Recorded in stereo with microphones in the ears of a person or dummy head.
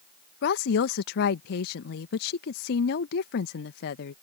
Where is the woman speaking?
65° left (ahead or behind).